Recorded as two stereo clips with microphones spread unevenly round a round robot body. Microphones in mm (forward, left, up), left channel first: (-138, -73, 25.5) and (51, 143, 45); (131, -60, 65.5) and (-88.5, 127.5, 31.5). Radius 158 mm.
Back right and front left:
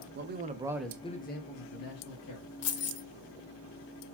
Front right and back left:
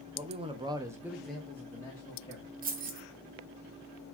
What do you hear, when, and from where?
0.1 s a man speaking: 85° left, 0.8 m; by 2.5 s 120° right, 1.4 m
2.6 s keys jangling: 160° right, 0.8 m